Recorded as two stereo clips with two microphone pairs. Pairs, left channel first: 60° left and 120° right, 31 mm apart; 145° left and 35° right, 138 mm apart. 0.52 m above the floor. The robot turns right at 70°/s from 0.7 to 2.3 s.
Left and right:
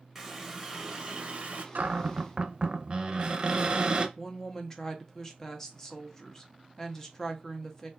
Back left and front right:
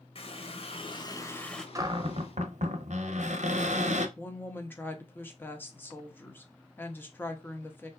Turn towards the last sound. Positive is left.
turn(degrees=95)